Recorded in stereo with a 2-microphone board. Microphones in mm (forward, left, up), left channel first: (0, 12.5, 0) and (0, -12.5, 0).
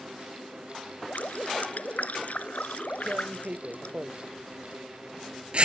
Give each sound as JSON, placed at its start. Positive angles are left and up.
{"t": 1.1, "sound": "dripping", "side_deg": 70}
{"t": 3.1, "sound": "tearing paper", "side_deg": -45}